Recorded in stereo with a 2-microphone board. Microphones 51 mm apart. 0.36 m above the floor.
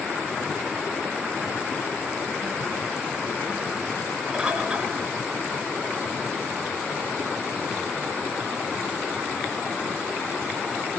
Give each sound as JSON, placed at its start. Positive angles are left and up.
{"t": 4.3, "sound": "a bird", "side_deg": -20, "distance_m": 4.0}